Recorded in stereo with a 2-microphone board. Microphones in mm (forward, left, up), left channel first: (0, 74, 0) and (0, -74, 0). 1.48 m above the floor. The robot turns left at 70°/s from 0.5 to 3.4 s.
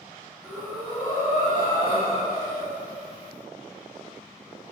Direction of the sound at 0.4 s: 165° right.